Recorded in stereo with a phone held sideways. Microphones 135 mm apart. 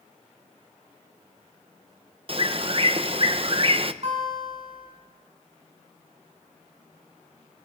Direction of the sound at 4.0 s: 45° right (ahead or behind).